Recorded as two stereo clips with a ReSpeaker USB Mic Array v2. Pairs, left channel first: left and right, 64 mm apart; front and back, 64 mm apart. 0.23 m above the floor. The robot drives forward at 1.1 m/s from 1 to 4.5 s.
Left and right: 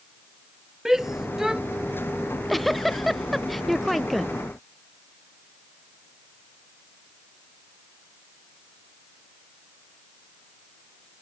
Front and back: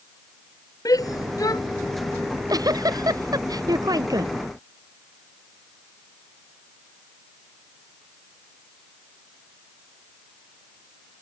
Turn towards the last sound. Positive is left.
turn(degrees=180)